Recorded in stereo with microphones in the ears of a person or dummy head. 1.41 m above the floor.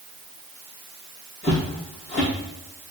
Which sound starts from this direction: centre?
Footsteps, at 1.4 s.